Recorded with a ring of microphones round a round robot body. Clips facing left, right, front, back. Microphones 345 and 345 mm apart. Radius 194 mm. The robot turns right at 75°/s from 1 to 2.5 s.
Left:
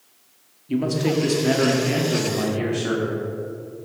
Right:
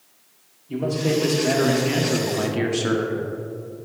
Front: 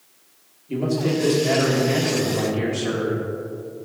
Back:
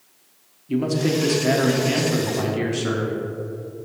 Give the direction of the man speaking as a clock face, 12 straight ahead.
8 o'clock.